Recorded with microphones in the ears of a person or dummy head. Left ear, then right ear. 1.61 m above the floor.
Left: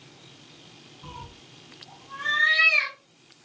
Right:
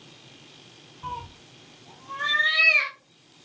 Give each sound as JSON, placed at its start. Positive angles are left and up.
{"t": 1.0, "sound": "a cat meowing", "side_deg": -65, "distance_m": 2.5}